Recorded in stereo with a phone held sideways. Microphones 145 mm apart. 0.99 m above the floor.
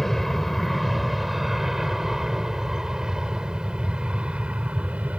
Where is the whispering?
I don't hear whispering.